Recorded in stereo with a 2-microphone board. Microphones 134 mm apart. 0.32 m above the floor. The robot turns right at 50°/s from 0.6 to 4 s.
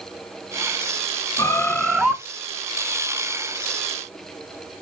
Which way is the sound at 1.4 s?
150° left.